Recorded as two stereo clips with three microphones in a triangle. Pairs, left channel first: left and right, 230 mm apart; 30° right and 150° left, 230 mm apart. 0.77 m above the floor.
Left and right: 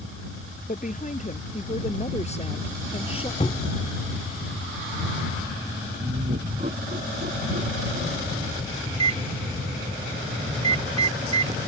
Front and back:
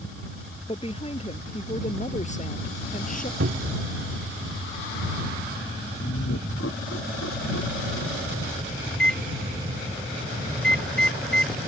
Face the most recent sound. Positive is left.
turn(degrees=-110)